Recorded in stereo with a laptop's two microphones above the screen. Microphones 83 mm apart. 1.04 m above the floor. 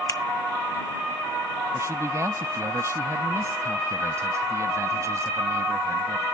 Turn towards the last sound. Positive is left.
turn(degrees=-35)  # may be behind; listen again after turning